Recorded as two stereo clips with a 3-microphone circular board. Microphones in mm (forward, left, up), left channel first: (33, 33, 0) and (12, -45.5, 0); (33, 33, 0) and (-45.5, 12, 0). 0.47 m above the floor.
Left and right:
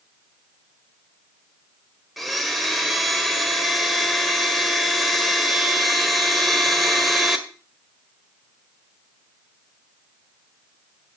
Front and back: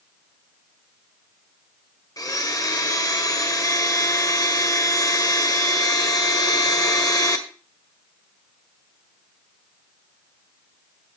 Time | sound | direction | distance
2.2 | a blender | 15° right | 1.6 m